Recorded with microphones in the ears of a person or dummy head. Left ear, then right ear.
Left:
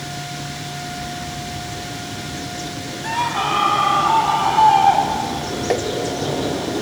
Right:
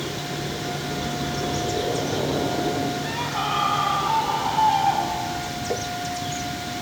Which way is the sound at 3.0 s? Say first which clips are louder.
Left 5 dB; 25° left (ahead or behind).